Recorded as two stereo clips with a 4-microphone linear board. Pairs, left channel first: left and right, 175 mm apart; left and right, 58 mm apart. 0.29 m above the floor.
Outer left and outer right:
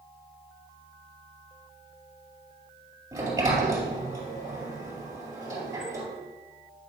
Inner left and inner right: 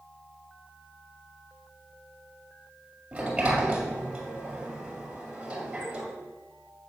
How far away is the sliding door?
About 2 m.